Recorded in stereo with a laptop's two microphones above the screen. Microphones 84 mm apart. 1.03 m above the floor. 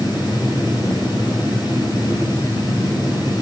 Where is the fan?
60° left (ahead or behind), 7.5 m.